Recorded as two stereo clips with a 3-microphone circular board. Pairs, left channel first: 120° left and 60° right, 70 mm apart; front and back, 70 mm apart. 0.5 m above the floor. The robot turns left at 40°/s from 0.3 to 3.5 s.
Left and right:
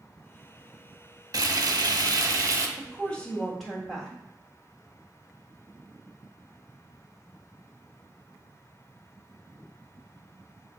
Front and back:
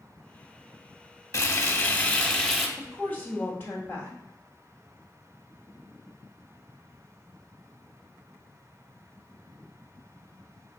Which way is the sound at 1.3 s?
40° right.